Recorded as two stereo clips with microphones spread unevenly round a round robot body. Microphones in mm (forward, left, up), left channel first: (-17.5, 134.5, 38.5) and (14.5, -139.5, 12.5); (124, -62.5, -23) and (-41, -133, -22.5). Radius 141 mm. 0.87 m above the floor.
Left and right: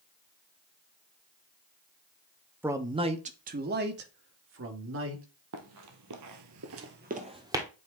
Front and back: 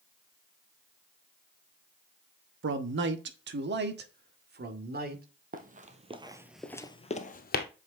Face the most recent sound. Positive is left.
turn(degrees=0)